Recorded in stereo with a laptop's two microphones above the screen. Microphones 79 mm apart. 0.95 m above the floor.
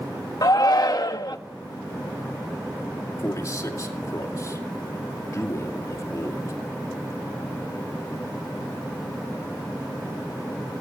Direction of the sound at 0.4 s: 50° left (ahead or behind).